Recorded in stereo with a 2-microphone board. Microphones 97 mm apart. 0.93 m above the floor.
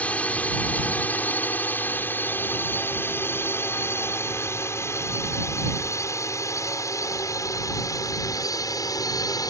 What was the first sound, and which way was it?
A drone, 15° left (ahead or behind).